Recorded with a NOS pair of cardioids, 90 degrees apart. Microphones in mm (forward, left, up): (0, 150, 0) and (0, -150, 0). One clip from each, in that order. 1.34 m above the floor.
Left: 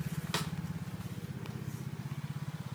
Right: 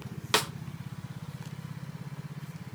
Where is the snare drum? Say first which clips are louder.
Right 10 dB; 55° right, 0.8 m.